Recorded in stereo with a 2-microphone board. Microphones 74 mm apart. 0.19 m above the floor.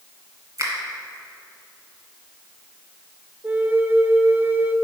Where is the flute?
25° right (ahead or behind), 0.5 m.